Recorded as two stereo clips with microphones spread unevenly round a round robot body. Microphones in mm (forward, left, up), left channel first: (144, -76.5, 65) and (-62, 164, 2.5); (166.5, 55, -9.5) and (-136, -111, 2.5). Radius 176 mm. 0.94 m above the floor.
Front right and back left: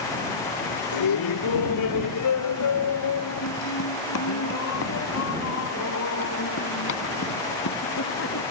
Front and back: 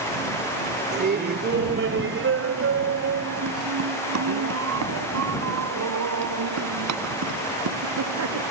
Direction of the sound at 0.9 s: 85° right.